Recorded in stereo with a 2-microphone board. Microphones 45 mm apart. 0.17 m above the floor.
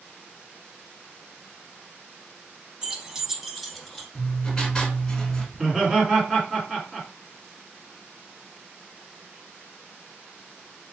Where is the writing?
15° left (ahead or behind), 1.6 m.